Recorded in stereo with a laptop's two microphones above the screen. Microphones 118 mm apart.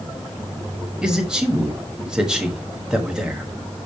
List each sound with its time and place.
1.0 s a man speaking: 5° right (ahead or behind), 1.2 m